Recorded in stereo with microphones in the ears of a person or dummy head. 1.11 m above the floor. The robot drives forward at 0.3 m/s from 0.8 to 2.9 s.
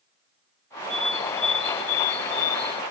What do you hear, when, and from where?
0.9 s a bird: 35° left (ahead or behind); by 2.8 s 30° left (ahead or behind)